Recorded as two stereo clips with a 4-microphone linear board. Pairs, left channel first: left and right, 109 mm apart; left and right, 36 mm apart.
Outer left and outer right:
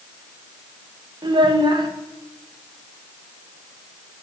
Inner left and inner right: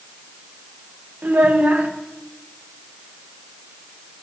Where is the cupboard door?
I don't hear a cupboard door.